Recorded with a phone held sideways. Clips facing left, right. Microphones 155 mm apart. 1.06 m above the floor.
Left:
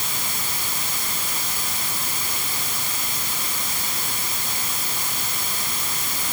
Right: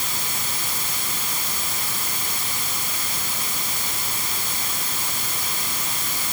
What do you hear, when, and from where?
Only background noise.